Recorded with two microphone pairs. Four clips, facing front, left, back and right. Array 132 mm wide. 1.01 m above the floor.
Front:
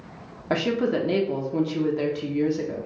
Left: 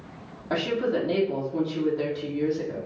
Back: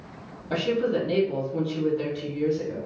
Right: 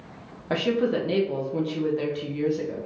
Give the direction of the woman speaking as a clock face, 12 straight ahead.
1 o'clock.